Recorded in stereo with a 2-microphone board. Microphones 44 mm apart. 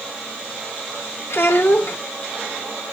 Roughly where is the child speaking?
Left.